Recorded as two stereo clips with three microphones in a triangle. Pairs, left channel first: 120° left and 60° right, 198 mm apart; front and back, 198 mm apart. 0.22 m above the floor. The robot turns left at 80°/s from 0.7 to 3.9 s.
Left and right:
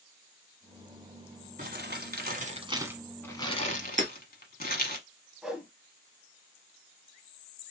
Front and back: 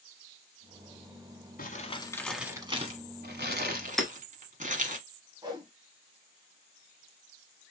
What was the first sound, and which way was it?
Crumpling, 30° right.